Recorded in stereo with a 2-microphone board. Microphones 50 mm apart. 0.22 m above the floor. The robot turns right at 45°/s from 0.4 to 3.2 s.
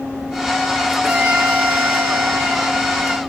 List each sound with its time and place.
1.0 s a violin: 170° right, 6.5 m; by 3.2 s 75° right, 6.5 m